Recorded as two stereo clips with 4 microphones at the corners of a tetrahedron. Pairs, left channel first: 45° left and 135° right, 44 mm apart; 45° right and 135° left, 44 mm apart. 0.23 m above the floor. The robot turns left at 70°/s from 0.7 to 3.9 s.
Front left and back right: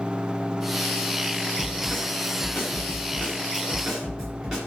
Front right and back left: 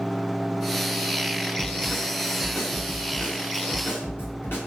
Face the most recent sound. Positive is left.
turn(degrees=-70)